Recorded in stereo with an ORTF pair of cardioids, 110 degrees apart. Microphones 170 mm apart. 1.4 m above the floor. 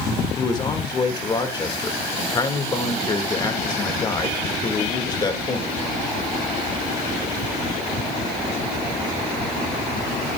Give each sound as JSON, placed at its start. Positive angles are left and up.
{"t": 0.4, "sound": "a man speaking", "azimuth_deg": 25, "distance_m": 2.0}